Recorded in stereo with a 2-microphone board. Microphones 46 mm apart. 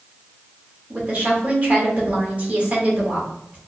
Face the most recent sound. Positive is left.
turn(degrees=-35)  # may be behind; listen again after turning